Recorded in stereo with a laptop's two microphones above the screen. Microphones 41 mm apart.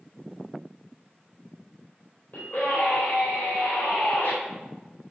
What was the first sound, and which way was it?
A scream, 55° left (ahead or behind).